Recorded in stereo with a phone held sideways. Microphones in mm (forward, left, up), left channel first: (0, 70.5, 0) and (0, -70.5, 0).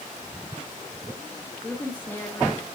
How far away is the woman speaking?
About 3 m.